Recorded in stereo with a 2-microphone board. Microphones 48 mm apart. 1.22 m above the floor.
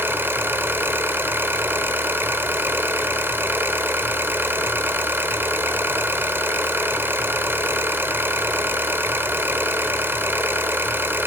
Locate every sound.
0.0 s an engine running: 50° right (ahead or behind), 1.3 m